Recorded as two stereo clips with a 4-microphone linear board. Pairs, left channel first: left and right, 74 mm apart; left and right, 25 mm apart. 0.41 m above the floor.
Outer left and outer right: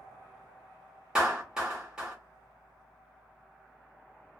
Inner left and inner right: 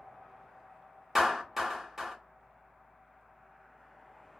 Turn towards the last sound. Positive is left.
turn(degrees=-10)  # may be behind; listen again after turning